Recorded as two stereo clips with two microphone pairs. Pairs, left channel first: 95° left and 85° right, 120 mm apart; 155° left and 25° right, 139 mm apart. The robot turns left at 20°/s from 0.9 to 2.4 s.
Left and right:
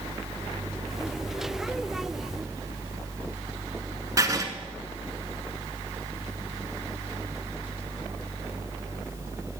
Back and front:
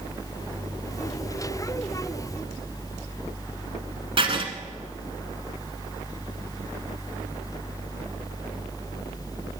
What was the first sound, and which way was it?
Writing, 40° right.